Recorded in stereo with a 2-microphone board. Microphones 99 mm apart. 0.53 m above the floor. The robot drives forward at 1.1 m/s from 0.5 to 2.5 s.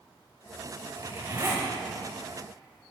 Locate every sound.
1.0 s a zipper: 45° right (ahead or behind), 2.5 m; by 1.7 s 35° right (ahead or behind), 3 m